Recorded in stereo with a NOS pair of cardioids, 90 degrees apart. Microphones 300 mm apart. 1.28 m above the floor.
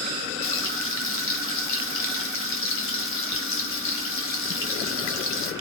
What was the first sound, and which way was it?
Frying, 45° left.